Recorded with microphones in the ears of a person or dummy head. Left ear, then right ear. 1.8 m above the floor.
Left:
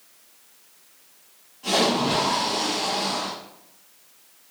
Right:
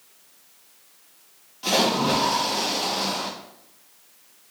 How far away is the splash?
About 0.7 m.